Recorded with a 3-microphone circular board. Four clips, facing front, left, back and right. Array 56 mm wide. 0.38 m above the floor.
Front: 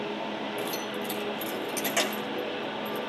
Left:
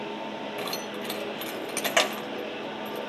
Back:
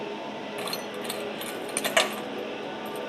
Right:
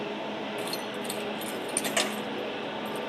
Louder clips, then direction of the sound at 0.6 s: Even, front 1 dB; 140° left.